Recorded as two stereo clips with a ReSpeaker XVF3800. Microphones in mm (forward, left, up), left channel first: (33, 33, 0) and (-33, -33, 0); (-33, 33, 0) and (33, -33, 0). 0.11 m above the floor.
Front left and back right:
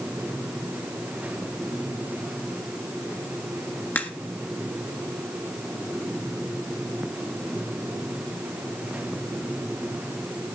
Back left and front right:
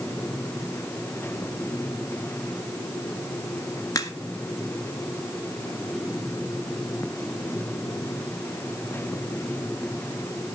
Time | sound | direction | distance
4.0 | a crack | 105° left | 1.9 m